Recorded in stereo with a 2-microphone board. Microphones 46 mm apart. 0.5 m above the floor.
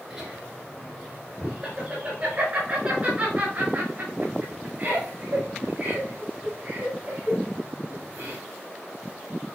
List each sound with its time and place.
0.1 s laughter: 30° right (ahead or behind), 5 m; by 8.4 s 55° right (ahead or behind), 8 m